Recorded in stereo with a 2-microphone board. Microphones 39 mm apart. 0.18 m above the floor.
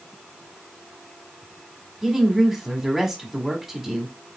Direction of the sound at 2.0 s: 10° right (ahead or behind).